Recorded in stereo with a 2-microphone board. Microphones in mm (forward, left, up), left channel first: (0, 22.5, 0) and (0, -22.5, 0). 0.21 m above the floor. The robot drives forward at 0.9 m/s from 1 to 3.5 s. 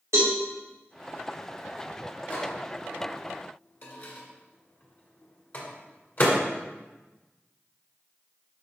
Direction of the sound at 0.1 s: 80° right.